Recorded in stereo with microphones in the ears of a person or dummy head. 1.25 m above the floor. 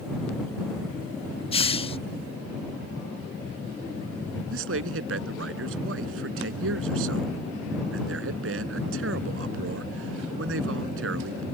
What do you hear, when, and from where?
1.5 s a hiss: 30° left (ahead or behind)
4.5 s a man speaking: 85° right